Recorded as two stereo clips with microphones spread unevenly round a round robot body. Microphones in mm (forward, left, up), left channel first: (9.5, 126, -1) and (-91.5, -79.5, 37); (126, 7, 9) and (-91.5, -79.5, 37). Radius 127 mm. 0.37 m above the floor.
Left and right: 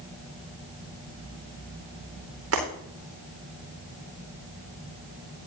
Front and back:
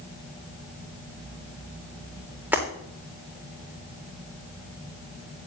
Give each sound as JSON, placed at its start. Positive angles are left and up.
{"t": 2.5, "sound": "breaking glass", "azimuth_deg": -75, "distance_m": 8.5}